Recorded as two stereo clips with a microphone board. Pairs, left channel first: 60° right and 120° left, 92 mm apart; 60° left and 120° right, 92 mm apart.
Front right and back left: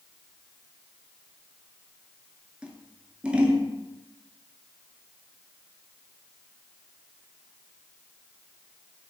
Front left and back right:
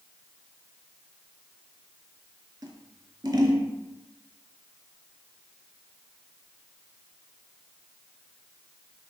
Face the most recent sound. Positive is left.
turn(degrees=-165)